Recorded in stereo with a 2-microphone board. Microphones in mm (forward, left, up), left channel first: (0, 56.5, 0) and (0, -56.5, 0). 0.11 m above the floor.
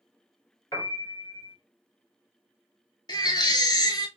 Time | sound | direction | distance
0.7 | a piano | 35° left (ahead or behind) | 1.3 m
3.1 | a baby crying | 40° left (ahead or behind) | 0.5 m